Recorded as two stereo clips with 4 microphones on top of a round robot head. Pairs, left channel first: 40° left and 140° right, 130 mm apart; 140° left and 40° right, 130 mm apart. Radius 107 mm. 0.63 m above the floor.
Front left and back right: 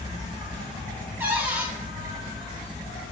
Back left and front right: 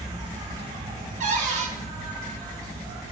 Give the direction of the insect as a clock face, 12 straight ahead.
11 o'clock.